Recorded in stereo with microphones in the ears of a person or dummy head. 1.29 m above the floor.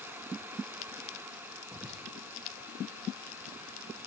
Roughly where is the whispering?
Centre.